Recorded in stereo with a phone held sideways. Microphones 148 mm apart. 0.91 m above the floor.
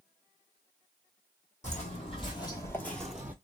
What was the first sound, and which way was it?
Footsteps, 50° left (ahead or behind).